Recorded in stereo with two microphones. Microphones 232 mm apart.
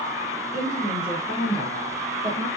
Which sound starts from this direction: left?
A woman speaking, at 0.5 s.